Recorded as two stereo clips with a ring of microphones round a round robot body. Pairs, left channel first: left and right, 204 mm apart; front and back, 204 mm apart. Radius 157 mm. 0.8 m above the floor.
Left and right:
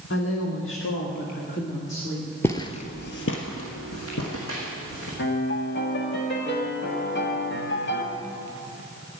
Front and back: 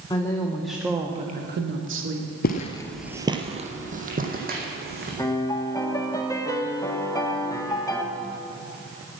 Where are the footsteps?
15° left, 1.0 m; by 5.1 s 140° left, 3.5 m.